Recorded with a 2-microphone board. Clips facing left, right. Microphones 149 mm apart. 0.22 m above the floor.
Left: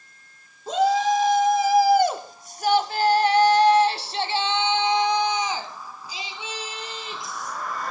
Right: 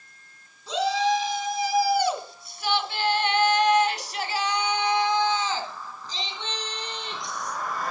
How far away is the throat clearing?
I don't hear throat clearing.